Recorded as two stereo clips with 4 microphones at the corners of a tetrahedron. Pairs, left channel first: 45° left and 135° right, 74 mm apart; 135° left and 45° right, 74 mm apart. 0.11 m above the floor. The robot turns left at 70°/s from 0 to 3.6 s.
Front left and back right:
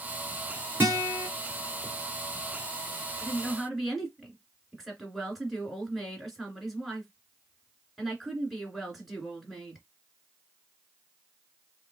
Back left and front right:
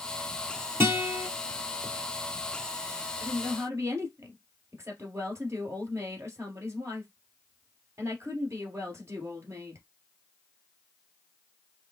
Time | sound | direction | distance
0.8 | a guitar | 90° right | 2.5 m
3.2 | a woman speaking | 20° right | 2 m